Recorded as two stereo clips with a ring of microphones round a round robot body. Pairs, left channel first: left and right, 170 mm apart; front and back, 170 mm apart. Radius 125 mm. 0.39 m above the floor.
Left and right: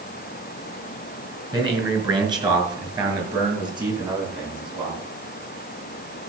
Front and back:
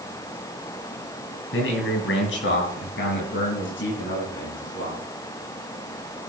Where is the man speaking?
25° right, 4.5 m.